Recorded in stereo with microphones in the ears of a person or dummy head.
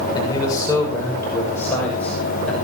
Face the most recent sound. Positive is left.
turn(degrees=5)  # may be behind; listen again after turning